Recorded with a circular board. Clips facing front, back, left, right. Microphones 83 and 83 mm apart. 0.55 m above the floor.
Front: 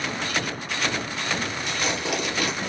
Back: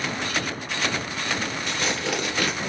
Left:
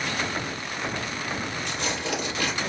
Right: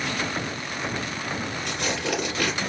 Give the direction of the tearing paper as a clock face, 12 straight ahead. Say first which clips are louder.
Even, right 3 dB; 4 o'clock.